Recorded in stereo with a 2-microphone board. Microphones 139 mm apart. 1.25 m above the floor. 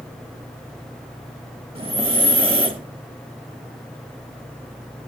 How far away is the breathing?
About 0.8 m.